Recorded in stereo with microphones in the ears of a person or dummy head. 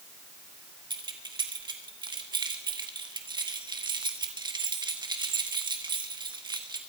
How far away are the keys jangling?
About 1.0 m.